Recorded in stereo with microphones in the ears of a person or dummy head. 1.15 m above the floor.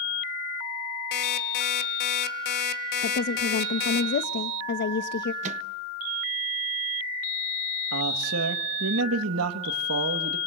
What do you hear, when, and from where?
1.1 s an alarm clock: 60° left (ahead or behind), 2 m
3.0 s a woman speaking: 55° left (ahead or behind), 1.1 m
5.4 s a microwave: 40° right (ahead or behind), 1.1 m
7.9 s a man speaking: 75° right (ahead or behind), 1.8 m